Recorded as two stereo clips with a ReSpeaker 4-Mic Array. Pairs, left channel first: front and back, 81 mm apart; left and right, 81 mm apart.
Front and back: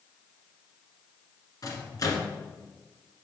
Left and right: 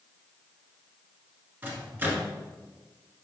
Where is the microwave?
30° right, 1.4 m.